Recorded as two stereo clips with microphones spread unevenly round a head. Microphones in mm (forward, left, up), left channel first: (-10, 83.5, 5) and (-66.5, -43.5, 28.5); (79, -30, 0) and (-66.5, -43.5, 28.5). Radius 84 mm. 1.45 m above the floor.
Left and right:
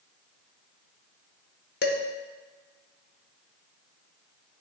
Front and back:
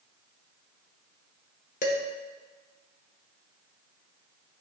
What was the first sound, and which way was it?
Dishes clattering, 55° left.